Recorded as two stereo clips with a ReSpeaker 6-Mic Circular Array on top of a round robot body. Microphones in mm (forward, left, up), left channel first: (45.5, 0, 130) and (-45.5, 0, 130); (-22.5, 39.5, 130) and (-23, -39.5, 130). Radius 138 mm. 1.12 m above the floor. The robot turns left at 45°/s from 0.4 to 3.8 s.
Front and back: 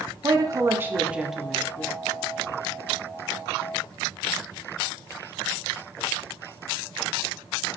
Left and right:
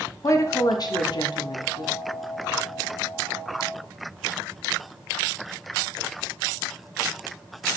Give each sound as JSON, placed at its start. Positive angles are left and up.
{"t": 0.2, "sound": "a woman speaking", "azimuth_deg": 135, "distance_m": 0.5}